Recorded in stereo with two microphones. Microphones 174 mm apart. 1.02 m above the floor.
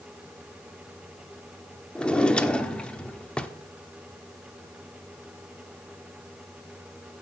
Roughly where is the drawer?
Centre.